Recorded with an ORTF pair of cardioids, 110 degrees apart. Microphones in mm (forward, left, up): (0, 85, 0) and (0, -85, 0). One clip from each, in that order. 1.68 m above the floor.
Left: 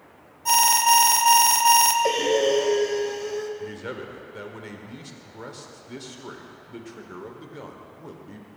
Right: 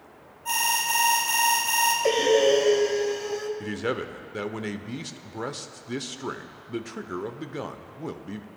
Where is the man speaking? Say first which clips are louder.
Right 5 dB; 35° right, 0.7 m.